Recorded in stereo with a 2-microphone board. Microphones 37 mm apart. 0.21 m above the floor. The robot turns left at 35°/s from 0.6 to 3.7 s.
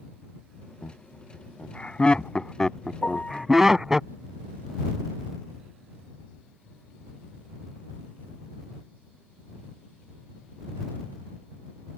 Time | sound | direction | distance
0.8 | laughter | 40° left (ahead or behind) | ?
3.0 | a piano | 45° left (ahead or behind) | ?